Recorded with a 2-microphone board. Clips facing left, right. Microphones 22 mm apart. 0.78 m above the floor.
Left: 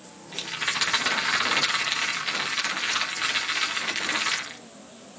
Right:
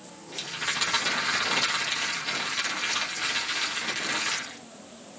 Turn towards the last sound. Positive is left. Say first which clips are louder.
# left 2 dB
turn(degrees=25)  # may be behind; listen again after turning